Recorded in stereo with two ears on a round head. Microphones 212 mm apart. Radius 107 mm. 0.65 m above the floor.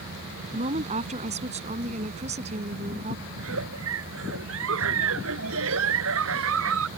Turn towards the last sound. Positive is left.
turn(degrees=-60)  # may be behind; listen again after turning